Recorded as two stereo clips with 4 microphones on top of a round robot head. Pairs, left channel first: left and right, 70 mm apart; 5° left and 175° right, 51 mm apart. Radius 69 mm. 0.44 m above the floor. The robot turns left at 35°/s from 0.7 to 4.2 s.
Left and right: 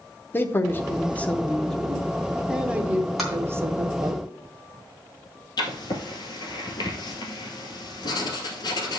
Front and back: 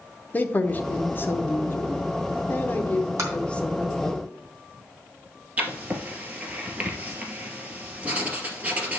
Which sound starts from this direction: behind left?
Writing, at 5.6 s.